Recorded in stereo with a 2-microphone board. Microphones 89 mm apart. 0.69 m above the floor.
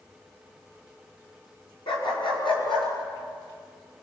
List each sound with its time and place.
1.9 s a dog barking: 80° left, 4.5 m; by 2.9 s 85° left, 6 m